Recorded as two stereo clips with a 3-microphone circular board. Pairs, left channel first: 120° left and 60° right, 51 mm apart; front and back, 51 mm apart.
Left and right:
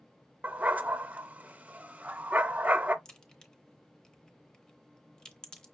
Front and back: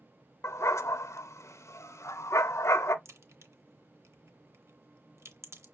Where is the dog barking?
Straight ahead, 0.5 m.